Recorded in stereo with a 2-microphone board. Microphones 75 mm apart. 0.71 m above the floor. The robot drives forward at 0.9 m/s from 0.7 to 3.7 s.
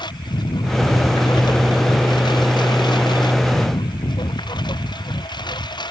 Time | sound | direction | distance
0.0 | a lawn mower | 90° left | ?